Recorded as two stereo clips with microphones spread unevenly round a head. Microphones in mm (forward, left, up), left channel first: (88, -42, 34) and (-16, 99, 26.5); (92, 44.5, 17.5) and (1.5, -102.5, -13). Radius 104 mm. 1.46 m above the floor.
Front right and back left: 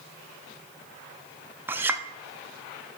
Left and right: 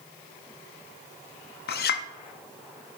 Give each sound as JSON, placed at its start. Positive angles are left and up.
{"t": 1.7, "sound": "a clink", "azimuth_deg": 50, "distance_m": 0.8}